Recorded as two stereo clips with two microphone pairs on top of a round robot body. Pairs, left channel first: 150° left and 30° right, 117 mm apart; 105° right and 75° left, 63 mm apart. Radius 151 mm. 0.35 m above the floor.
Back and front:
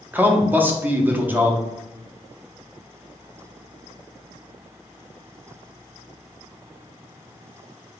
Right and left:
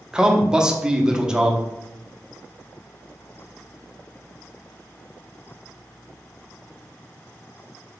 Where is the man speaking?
10° left, 0.9 m.